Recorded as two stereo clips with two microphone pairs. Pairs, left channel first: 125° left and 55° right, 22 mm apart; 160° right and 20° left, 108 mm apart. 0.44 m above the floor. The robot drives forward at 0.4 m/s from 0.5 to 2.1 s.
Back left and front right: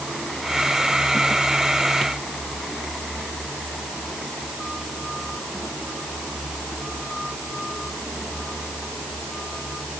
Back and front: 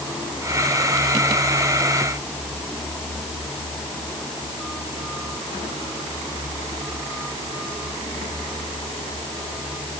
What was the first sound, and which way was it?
Only background noise.